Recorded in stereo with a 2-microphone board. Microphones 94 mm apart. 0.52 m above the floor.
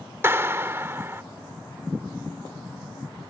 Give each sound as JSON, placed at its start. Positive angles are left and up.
{"t": 0.2, "sound": "a clap", "side_deg": -25}